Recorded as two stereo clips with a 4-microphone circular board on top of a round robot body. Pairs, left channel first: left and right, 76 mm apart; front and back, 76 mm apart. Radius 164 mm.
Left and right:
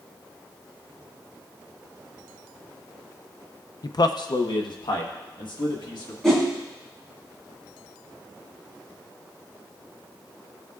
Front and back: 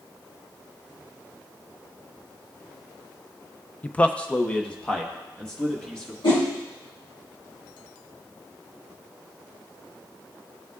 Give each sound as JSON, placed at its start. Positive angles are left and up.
{"t": 3.8, "sound": "a man speaking", "azimuth_deg": 70, "distance_m": 0.5}
{"t": 6.2, "sound": "a whoosh", "azimuth_deg": 5, "distance_m": 2.5}